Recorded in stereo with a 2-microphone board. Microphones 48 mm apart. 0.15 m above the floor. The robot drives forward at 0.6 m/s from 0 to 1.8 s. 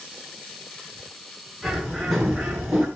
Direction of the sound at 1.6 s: 5° right (ahead or behind).